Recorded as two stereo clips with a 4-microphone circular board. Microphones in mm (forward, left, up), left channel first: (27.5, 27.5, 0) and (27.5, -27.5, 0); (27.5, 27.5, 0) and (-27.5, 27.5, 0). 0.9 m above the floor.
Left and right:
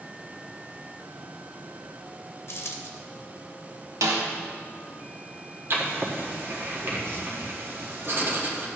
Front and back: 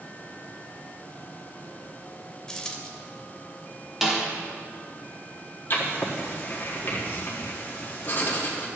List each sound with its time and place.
2.5 s a dropped coin: 75° left, 1.0 m
4.0 s a snare drum: 95° right, 1.1 m
5.7 s writing: 45° right, 1.4 m